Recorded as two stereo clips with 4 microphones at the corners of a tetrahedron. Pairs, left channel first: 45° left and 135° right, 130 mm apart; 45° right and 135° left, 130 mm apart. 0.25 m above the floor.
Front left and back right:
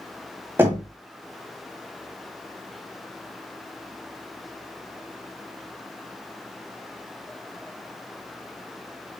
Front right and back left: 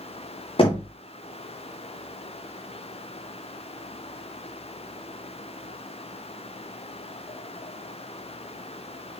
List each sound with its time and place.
0.6 s knocking: 65° right, 1.4 m